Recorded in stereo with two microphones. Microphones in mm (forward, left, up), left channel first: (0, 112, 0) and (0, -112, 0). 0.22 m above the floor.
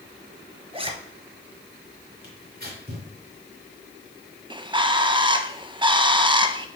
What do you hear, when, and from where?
0.7 s a zipper: 25° right (ahead or behind), 0.9 m
2.2 s tearing paper: 45° right (ahead or behind), 3.5 m
4.5 s a bird: 20° right (ahead or behind), 0.6 m